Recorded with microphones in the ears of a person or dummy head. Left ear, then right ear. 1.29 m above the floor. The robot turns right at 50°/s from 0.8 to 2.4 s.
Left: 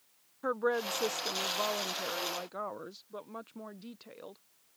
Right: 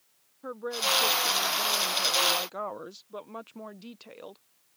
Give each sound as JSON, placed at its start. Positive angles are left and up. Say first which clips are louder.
{"t": 0.4, "sound": "a woman speaking", "louder": "right 1 dB", "azimuth_deg": 120}